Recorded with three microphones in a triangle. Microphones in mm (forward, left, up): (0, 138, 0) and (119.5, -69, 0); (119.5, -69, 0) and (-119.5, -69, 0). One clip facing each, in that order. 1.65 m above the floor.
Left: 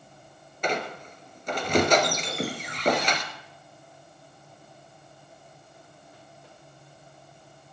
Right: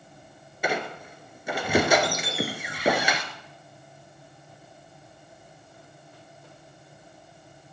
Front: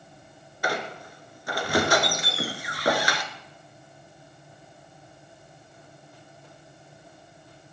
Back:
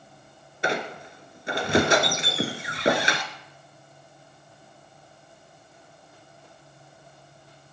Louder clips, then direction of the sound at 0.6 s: Even, back 2 dB; 135° right.